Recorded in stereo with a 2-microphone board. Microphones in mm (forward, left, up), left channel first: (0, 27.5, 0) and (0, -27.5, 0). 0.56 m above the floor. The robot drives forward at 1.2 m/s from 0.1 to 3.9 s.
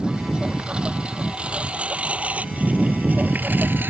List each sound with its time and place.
0.0 s a lawn mower: 15° right (ahead or behind); by 3.9 s 40° right (ahead or behind)